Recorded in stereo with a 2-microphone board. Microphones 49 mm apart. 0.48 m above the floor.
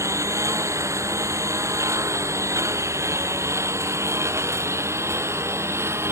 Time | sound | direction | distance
0.0 | a lawn mower | 85° right | ?